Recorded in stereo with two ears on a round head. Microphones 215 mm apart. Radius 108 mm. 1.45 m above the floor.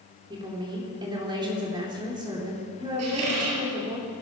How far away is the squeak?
About 4 m.